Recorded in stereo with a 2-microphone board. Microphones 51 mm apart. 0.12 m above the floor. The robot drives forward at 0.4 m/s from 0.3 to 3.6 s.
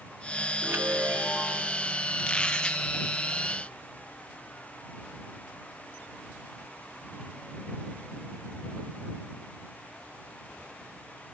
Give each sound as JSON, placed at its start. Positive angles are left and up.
{"t": 0.6, "sound": "a chime", "side_deg": -50, "distance_m": 1.9}
{"t": 2.2, "sound": "a squeak", "side_deg": 15, "distance_m": 2.0}